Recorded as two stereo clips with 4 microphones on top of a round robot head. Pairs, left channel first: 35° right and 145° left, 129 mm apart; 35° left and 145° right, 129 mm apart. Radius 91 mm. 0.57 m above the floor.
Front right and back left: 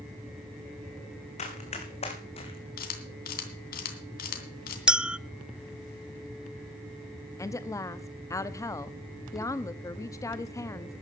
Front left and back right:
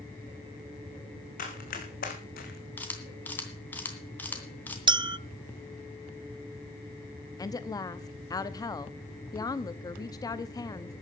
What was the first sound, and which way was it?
Running footsteps, 5° left.